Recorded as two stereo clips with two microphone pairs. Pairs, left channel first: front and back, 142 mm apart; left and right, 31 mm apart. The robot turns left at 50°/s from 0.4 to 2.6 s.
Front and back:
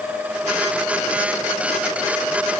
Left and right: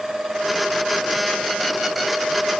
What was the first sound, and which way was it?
Only background noise.